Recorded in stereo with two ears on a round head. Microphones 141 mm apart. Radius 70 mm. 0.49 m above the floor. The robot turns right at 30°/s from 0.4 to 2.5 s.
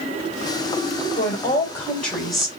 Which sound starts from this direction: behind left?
A woman speaking, at 1.2 s.